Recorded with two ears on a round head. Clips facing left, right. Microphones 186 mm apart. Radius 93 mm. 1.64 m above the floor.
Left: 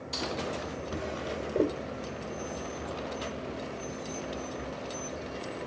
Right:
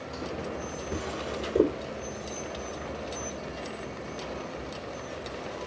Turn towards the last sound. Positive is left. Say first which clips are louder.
# right 2 dB
turn(degrees=-50)  # may be behind; listen again after turning